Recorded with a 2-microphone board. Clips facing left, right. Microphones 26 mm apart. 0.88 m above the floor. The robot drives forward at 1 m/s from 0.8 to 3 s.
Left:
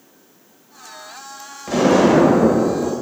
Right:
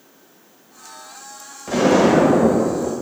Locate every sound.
1.7 s an explosion: 10° left (ahead or behind), 2.0 m; by 2.9 s 30° left (ahead or behind), 0.8 m